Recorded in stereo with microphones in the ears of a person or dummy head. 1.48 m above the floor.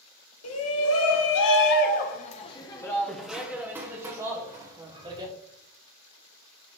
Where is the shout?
80° left, 1.3 m; by 5.3 s 35° right (ahead or behind), 1.8 m.